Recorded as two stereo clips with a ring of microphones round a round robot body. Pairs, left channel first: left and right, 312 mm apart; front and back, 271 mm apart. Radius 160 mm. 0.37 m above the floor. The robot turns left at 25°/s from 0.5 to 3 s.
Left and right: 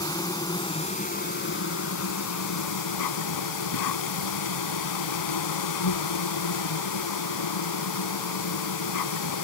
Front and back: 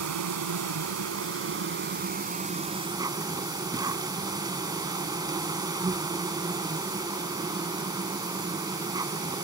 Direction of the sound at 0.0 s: 170° left.